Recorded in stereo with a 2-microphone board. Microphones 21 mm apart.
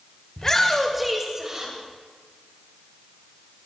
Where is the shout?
30° left (ahead or behind), 1.5 m; by 1.7 s 30° right (ahead or behind), 2 m.